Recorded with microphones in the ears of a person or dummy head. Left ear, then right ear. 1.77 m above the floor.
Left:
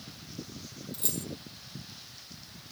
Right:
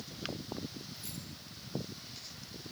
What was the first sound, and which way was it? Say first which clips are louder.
Keys jangling: left 9 dB; 50° left (ahead or behind).